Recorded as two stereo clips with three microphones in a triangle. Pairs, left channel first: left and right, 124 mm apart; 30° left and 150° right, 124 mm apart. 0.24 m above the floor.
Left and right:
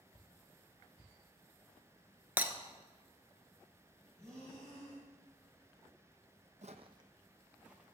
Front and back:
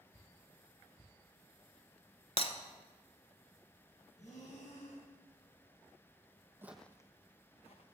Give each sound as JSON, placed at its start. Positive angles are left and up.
{"t": 2.4, "sound": "breaking glass", "azimuth_deg": -15, "distance_m": 0.8}
{"t": 4.2, "sound": "breathing", "azimuth_deg": 5, "distance_m": 3.0}
{"t": 6.6, "sound": "footsteps", "azimuth_deg": -80, "distance_m": 0.5}